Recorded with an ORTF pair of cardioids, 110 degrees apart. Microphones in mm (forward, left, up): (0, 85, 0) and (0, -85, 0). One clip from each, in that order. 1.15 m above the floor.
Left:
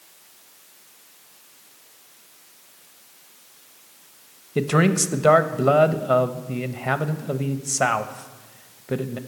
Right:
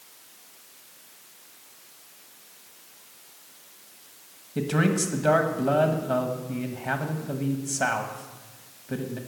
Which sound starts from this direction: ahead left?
A man speaking, at 4.5 s.